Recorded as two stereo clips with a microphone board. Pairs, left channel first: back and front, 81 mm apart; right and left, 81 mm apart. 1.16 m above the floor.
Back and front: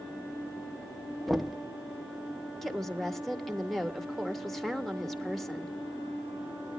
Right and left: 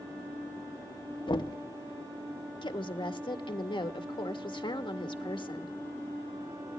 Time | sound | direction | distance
1.3 | knocking | 90° right | 0.9 m
2.6 | a woman speaking | 90° right | 1.5 m